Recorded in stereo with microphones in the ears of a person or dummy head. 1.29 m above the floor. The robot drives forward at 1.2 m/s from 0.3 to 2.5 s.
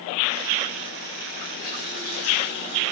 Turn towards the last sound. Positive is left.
turn(degrees=40)  # may be behind; listen again after turning